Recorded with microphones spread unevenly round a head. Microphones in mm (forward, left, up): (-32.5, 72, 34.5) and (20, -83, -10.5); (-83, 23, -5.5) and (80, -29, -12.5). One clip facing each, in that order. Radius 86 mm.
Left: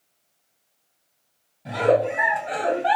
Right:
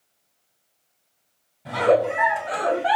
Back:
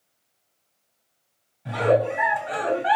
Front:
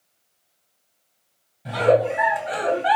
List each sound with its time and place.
1.6 s a giggle: 20° left, 2.5 m